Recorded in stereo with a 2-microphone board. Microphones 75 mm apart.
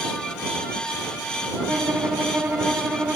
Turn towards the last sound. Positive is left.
turn(degrees=-25)  # may be behind; listen again after turning